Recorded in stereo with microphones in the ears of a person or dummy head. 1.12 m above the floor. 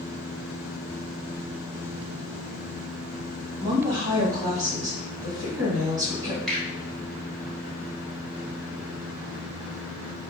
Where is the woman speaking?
25° right (ahead or behind), 1.4 m.